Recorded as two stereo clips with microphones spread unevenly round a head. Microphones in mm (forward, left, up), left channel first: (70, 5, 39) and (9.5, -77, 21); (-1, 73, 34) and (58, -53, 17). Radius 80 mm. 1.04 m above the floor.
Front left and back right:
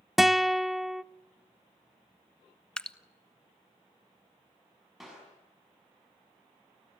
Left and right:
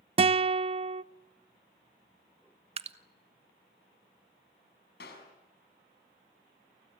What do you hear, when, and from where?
0.2 s a guitar: 45° right, 0.6 m
2.8 s dripping: 30° right, 1.3 m
5.0 s a clap: 145° left, 6.5 m